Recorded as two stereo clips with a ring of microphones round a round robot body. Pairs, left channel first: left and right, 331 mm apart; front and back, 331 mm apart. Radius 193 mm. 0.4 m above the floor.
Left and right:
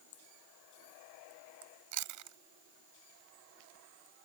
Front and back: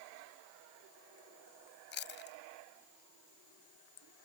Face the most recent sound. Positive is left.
turn(degrees=-60)